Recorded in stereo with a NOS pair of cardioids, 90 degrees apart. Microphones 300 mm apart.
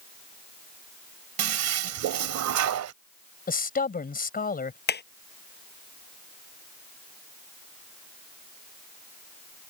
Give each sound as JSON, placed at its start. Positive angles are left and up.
{"t": 1.4, "sound": "a toilet flushing", "azimuth_deg": -65}
{"t": 3.5, "sound": "a man speaking", "azimuth_deg": 30}
{"t": 4.9, "sound": "hammering", "azimuth_deg": 35}